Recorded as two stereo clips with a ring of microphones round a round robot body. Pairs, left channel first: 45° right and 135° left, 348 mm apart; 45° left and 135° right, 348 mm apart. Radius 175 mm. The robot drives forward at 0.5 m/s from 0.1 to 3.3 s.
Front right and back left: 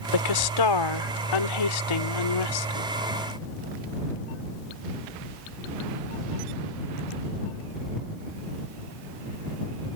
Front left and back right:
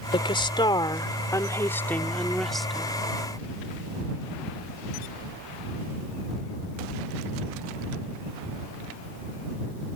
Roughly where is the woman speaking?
Ahead right.